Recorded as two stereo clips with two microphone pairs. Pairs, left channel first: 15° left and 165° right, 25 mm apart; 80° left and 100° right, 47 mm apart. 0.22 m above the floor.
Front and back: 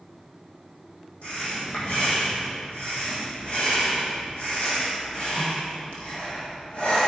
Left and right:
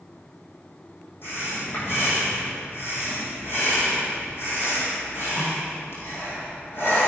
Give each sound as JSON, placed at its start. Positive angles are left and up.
{"t": 1.2, "sound": "breathing", "azimuth_deg": 45, "distance_m": 4.0}